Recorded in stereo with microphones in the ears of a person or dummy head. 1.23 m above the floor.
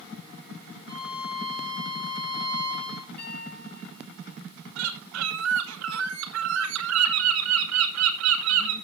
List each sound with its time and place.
0.9 s a violin: 30° left (ahead or behind), 6 m
3.2 s a piano: 10° left (ahead or behind), 7.5 m
4.8 s a bird: 75° right (ahead or behind), 2 m